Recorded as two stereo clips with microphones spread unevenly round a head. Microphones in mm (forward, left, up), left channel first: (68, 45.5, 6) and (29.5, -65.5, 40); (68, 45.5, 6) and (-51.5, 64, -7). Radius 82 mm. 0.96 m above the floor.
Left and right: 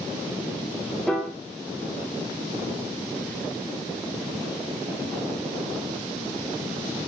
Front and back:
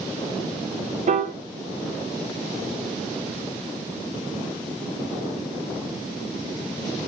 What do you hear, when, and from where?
1.1 s a piano: 150° left, 0.5 m